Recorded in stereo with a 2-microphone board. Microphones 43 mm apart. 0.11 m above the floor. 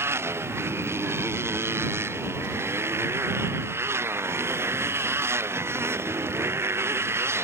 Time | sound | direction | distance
0.0 | a motorcycle | 90° right | ?